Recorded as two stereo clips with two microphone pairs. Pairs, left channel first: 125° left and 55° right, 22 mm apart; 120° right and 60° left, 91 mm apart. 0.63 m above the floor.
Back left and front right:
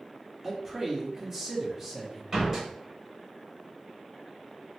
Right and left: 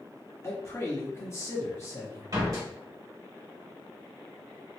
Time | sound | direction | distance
0.4 | a man speaking | 100° right | 0.9 m
2.3 | a door slam | 10° left | 1.5 m